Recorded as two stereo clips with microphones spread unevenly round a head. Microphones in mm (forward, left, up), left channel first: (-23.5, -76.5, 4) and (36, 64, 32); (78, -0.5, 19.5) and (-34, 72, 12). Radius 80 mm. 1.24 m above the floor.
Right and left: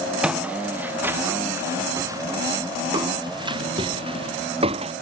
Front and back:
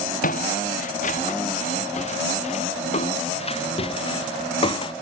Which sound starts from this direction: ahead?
Footsteps, at 0.2 s.